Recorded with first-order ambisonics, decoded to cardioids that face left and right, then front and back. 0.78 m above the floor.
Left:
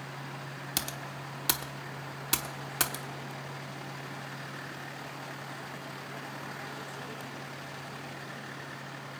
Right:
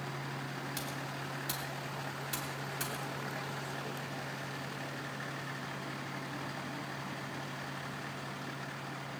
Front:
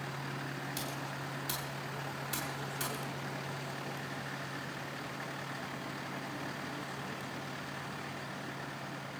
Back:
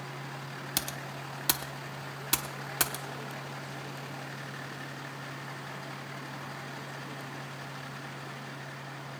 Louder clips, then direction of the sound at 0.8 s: Left 3 dB, back 3 dB; 135° left.